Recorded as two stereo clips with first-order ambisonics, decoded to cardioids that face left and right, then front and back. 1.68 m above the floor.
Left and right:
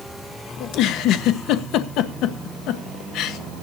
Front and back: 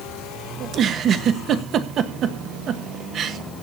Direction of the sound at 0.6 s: 125° left.